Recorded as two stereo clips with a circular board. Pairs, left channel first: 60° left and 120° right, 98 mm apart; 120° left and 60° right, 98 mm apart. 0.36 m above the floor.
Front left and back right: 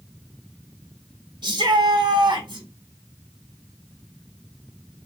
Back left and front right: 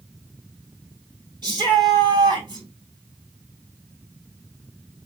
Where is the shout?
90° right, 3 m.